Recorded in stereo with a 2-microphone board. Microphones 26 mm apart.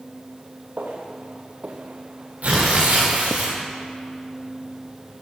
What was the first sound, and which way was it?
Footsteps, 80° right.